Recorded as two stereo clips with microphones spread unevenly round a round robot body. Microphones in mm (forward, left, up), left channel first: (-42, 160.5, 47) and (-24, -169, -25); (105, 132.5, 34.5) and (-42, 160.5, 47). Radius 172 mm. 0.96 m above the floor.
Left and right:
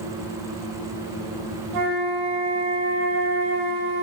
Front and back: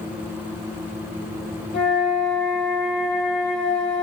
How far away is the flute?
About 5 m.